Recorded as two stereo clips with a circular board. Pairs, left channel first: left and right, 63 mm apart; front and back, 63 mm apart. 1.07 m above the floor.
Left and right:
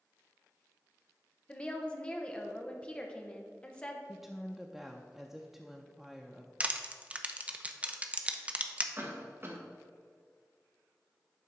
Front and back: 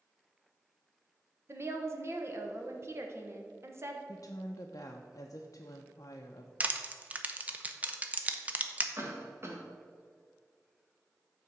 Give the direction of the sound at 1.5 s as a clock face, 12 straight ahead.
7 o'clock.